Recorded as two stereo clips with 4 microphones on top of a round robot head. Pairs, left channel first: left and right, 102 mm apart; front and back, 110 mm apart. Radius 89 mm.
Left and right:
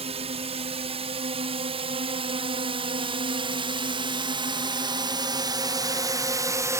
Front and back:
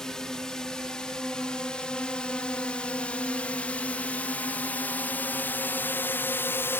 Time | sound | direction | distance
0.0 | a drone | 85° right | ?